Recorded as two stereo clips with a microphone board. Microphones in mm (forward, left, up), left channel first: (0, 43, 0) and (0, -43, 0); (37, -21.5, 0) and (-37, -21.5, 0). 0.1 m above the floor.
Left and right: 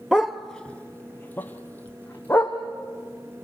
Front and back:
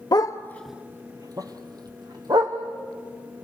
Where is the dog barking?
5° right, 1.0 m; by 2.6 s 160° left, 3 m.